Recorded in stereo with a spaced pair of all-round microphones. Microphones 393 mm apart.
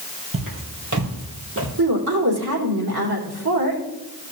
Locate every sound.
0.3 s footsteps: 60° right (ahead or behind), 2 m; by 1.7 s 35° right (ahead or behind), 2.5 m
1.8 s a woman speaking: 80° right, 3 m